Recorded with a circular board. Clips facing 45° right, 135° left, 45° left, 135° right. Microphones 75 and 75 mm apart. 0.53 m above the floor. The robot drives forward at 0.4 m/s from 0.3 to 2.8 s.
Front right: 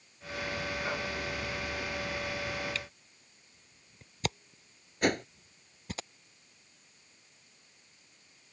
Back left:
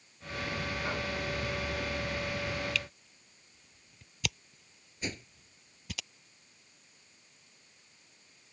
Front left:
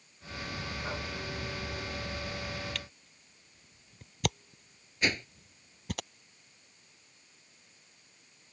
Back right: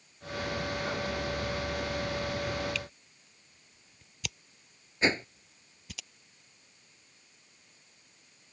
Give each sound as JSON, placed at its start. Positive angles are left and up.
{"t": 2.8, "sound": "a camera shutter", "azimuth_deg": 10}
{"t": 5.0, "sound": "a whoosh", "azimuth_deg": -70}